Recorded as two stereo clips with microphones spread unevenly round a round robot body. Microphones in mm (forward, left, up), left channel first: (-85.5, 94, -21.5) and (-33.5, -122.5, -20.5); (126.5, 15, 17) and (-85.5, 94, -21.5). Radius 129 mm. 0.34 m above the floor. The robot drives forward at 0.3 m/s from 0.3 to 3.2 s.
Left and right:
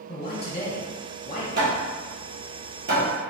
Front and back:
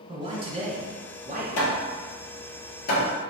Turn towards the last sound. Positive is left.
turn(degrees=-30)